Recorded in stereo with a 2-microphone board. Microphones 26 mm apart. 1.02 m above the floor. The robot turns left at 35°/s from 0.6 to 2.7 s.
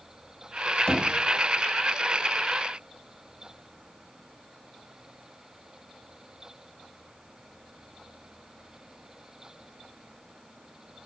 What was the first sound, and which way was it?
Knocking, 50° left (ahead or behind).